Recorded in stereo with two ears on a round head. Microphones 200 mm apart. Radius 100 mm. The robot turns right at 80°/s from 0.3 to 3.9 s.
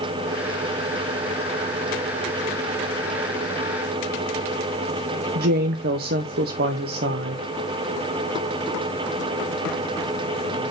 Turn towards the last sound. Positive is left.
turn(degrees=-45)  # may be behind; listen again after turning